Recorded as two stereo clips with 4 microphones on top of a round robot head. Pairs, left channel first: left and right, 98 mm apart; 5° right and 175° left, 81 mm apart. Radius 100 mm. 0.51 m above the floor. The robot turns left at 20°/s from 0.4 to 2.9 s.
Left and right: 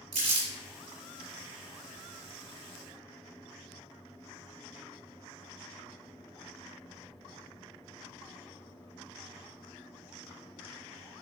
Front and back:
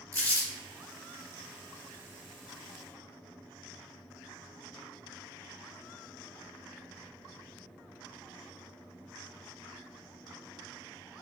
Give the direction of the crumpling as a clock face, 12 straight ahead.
2 o'clock.